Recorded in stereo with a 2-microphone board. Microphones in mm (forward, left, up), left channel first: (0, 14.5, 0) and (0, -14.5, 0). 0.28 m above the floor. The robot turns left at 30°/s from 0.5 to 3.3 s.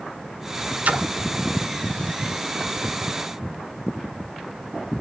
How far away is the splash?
About 0.6 m.